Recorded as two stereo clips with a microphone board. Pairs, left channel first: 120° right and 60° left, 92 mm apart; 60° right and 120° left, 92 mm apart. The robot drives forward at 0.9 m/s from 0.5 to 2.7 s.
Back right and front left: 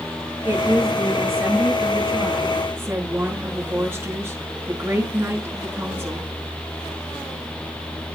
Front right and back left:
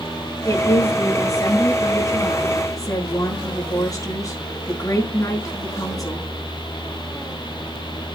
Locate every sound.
0.5 s a woman speaking: 5° right, 8 m; by 6.3 s 10° right, 6 m